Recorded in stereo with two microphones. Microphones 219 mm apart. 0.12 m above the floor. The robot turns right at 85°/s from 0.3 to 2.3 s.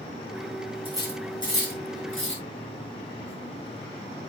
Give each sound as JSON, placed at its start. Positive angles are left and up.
{"t": 0.8, "sound": "cutlery clinking", "side_deg": -25, "distance_m": 6.0}